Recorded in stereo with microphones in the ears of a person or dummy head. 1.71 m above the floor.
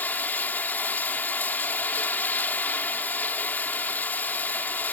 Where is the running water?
10° left (ahead or behind).